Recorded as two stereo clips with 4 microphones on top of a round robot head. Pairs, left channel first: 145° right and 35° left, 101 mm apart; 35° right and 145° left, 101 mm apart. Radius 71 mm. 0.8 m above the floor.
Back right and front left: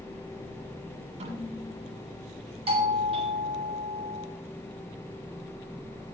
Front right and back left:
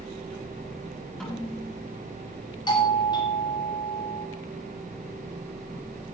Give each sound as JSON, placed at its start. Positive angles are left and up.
{"t": 1.2, "sound": "a snare drum", "azimuth_deg": 50, "distance_m": 7.0}
{"t": 2.7, "sound": "a doorbell", "azimuth_deg": 10, "distance_m": 3.0}